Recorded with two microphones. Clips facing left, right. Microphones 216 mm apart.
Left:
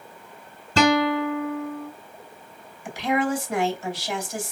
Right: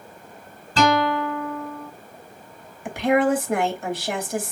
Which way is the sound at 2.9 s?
55° right (ahead or behind).